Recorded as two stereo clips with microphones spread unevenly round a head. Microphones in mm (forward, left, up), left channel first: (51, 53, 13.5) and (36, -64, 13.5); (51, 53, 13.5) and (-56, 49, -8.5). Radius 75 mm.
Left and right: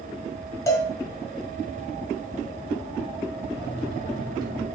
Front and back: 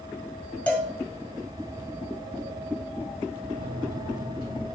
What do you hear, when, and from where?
0.7 s a cowbell: 40° left, 1.8 m
3.5 s a microwave: 40° right, 4 m